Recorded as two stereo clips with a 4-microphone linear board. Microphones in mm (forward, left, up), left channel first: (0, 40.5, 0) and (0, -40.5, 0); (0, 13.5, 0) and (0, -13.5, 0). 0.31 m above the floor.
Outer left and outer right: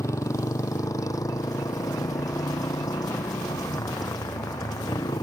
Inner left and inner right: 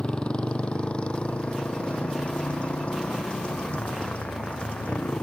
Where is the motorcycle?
40° left (ahead or behind); by 5.2 s 55° left (ahead or behind).